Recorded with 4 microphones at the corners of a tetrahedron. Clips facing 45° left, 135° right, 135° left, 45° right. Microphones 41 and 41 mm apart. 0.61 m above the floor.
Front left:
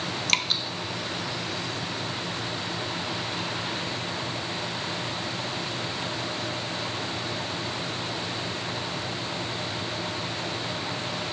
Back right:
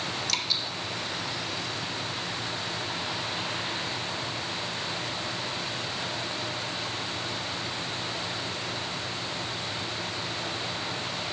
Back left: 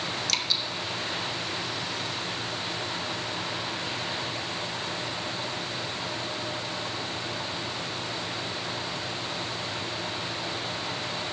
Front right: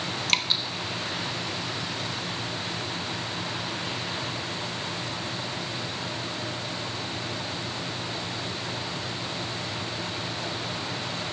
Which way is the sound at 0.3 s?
5° left.